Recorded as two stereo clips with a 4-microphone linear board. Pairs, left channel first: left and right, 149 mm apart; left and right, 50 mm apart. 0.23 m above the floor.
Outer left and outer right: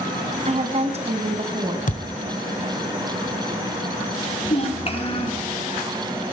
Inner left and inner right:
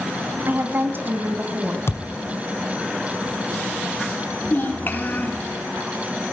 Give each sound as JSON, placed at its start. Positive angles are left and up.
{"t": 0.5, "sound": "a woman speaking", "side_deg": -45, "distance_m": 1.6}
{"t": 1.9, "sound": "a thud", "side_deg": 60, "distance_m": 0.9}
{"t": 4.5, "sound": "a child speaking", "side_deg": 40, "distance_m": 3.0}